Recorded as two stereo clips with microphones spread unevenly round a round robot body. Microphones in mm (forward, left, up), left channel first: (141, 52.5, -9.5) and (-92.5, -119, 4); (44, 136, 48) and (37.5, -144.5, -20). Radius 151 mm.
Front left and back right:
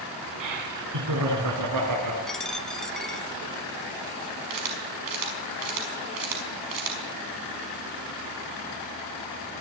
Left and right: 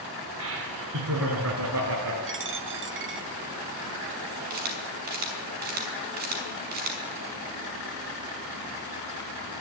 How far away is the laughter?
About 3.5 m.